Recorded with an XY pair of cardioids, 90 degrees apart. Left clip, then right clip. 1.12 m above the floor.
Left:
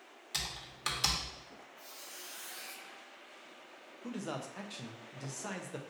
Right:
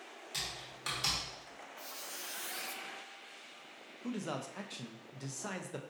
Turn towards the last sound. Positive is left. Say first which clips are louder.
# right 1 dB
turn(degrees=-10)